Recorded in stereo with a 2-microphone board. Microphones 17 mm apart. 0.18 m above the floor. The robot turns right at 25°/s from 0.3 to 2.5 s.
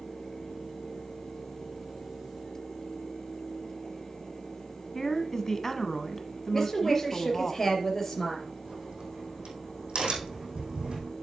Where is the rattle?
No rattle in this recording.